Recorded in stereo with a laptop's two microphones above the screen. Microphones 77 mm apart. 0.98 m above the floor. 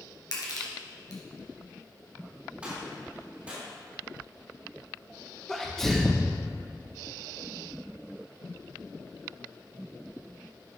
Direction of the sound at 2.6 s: 15° right (ahead or behind).